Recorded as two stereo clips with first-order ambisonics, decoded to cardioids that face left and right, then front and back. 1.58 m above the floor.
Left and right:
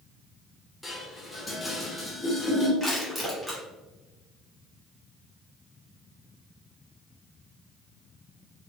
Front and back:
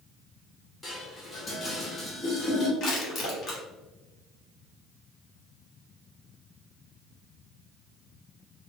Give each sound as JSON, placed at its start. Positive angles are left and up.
{"t": 0.8, "sound": "dishes clattering", "azimuth_deg": 40, "distance_m": 0.7}
{"t": 2.8, "sound": "crushing", "azimuth_deg": 0, "distance_m": 1.1}